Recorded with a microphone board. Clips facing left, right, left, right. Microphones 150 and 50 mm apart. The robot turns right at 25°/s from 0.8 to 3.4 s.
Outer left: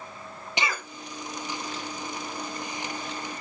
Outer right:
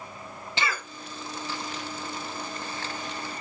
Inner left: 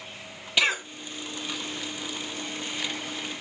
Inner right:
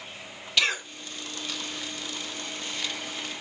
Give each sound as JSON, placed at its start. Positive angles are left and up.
{"t": 0.6, "sound": "a cough", "side_deg": 15, "distance_m": 0.9}